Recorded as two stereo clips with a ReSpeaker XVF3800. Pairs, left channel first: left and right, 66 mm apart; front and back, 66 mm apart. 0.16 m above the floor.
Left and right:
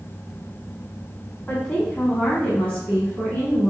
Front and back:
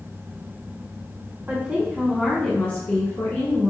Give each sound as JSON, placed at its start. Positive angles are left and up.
{"t": 1.5, "sound": "a woman speaking", "azimuth_deg": 145, "distance_m": 1.4}